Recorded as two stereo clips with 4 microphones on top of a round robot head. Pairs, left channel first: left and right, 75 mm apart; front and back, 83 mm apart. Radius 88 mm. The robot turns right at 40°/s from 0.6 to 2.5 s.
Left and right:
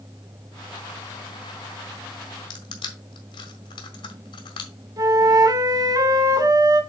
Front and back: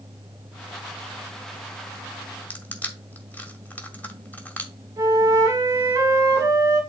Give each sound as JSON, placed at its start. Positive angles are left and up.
{"t": 2.5, "sound": "crushing", "azimuth_deg": 70, "distance_m": 1.7}
{"t": 5.0, "sound": "a flute", "azimuth_deg": -120, "distance_m": 1.8}